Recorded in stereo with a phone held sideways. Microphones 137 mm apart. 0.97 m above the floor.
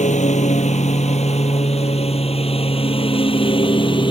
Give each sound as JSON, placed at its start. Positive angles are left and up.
{"t": 0.0, "sound": "a lawn mower", "side_deg": 60}